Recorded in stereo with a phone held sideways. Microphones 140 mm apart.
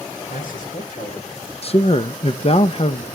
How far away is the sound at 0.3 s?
About 4 m.